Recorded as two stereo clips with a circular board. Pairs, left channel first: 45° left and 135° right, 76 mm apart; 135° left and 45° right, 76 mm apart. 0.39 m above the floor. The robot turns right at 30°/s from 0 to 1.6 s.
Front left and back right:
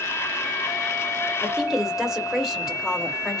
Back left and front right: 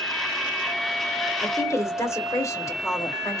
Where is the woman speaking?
135° left, 1.3 m; by 3.4 s 145° left, 1.3 m.